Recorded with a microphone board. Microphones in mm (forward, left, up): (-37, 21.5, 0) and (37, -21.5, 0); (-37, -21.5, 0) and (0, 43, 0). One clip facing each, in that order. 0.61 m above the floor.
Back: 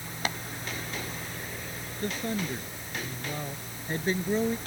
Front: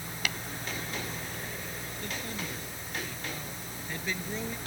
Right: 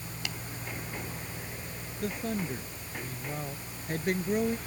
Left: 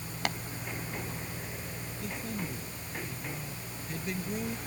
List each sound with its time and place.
0.2 s tapping: 95° left
2.0 s a man speaking: 155° right